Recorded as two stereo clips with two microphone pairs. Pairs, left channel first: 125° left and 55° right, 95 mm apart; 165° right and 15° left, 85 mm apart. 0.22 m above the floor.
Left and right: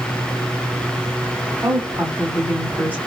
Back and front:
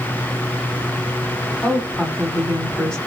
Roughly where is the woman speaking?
Right.